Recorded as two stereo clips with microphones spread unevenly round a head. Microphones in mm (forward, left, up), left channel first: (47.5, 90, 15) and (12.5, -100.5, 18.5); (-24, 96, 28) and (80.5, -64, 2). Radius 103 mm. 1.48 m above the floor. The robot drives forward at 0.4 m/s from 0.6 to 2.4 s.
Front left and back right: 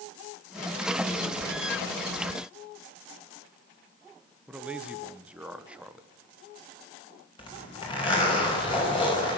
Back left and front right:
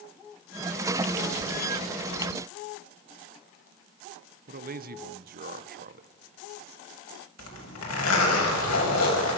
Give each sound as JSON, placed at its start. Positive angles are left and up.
{"t": 4.5, "sound": "a man speaking", "azimuth_deg": -15, "distance_m": 1.4}
{"t": 7.4, "sound": "a zipper", "azimuth_deg": 150, "distance_m": 6.5}